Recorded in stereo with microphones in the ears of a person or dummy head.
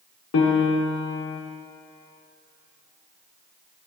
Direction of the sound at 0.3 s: 70° left (ahead or behind).